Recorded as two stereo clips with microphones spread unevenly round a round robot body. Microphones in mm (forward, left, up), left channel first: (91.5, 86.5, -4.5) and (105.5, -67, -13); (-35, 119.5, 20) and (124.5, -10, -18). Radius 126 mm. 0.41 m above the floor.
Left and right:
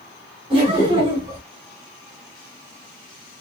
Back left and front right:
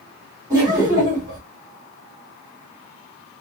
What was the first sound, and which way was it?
Laughter, 85° right.